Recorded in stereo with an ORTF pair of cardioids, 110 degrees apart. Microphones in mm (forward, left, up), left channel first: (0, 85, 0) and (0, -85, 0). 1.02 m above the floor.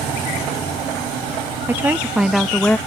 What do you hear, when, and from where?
1.7 s a woman speaking: 15° right; by 2.8 s 10° left